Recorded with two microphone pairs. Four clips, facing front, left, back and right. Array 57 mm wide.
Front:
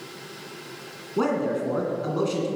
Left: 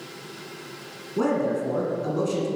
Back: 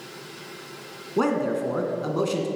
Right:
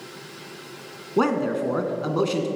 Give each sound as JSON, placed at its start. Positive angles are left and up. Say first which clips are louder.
{"t": 1.2, "sound": "a man speaking", "louder": "right 2 dB, back 1 dB", "azimuth_deg": -95, "distance_m": 2.0}